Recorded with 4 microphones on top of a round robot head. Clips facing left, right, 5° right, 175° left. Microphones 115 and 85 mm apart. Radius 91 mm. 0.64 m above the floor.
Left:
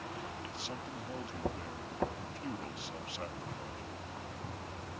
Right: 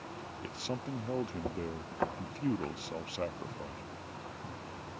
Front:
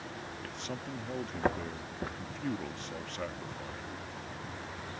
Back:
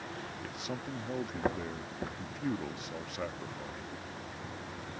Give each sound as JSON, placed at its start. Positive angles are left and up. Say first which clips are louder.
{"t": 0.4, "sound": "a man speaking", "louder": "right 4 dB, back 1 dB", "azimuth_deg": -105}